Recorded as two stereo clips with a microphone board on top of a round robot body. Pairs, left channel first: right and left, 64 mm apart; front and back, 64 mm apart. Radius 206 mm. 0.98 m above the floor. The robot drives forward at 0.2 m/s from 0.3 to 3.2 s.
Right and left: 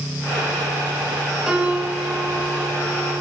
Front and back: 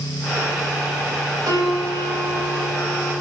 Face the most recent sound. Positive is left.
turn(degrees=165)